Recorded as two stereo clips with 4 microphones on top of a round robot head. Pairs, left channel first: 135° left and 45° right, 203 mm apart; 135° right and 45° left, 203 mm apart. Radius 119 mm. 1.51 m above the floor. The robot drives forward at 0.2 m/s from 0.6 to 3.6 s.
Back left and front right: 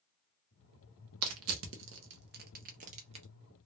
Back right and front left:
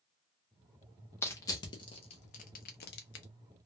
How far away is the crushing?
About 0.6 m.